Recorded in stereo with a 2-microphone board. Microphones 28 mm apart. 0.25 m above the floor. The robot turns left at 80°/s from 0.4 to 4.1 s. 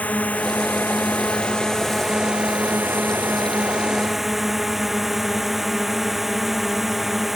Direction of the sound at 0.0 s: 125° left.